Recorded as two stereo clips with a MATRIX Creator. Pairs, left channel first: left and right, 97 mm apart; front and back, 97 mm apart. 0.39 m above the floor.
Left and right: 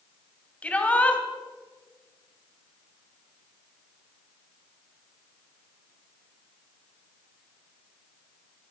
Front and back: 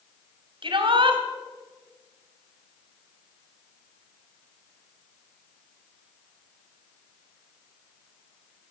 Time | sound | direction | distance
0.6 | a shout | 165° left | 3 m